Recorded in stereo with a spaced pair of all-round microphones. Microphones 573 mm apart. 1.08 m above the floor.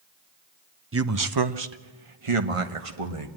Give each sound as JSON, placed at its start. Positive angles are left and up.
{"t": 0.9, "sound": "a man speaking", "side_deg": -25, "distance_m": 0.7}